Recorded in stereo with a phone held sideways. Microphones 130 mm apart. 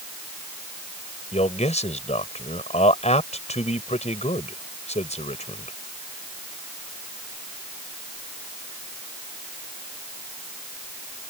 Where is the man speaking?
60° left (ahead or behind).